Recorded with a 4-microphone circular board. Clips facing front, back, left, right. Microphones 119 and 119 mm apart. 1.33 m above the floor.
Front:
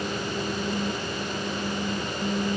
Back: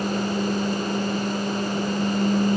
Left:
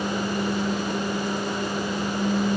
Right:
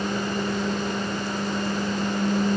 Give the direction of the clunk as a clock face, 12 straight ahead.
I don't hear a clunk.